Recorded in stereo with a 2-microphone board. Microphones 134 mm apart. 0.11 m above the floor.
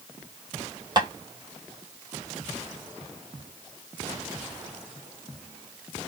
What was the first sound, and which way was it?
Tapping, 35° right (ahead or behind).